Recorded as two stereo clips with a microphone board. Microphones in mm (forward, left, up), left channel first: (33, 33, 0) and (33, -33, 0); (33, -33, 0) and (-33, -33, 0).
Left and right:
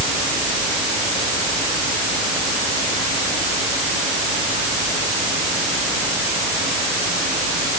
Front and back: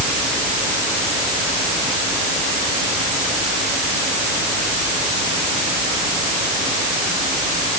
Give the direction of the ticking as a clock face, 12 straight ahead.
I don't hear ticking.